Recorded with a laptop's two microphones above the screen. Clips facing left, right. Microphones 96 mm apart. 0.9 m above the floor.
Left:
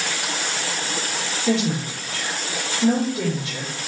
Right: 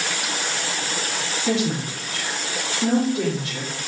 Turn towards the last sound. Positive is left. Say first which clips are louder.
# left 1 dB
turn(degrees=-30)  # may be behind; listen again after turning